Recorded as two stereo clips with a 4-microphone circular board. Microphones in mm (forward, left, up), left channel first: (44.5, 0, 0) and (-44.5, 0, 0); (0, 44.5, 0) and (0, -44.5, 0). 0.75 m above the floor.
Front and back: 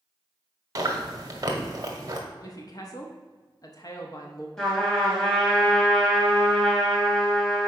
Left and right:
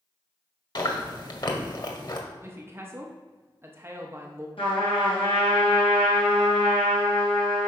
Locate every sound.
0.8 s chewing: 130° left, 1.3 m
2.4 s a woman speaking: 35° right, 0.8 m
4.6 s a trumpet: 85° left, 2.5 m